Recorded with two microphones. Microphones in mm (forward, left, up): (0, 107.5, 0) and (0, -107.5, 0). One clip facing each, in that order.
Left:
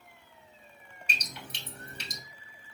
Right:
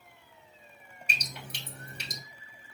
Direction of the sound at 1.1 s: 60° right (ahead or behind).